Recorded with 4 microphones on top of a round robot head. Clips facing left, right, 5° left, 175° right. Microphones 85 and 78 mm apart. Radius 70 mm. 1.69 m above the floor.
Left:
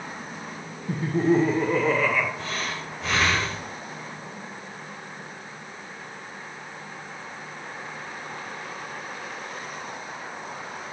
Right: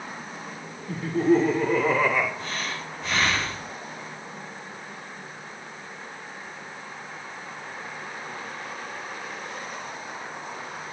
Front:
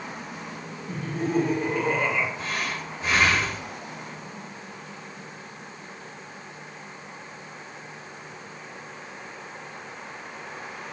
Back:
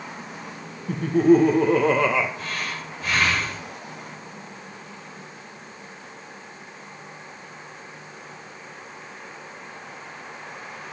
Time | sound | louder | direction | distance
0.9 | laughter | right 1 dB, back 11 dB | 155° left | 1.5 m
2.4 | breathing | left 1 dB, front 1 dB | 75° left | 5.5 m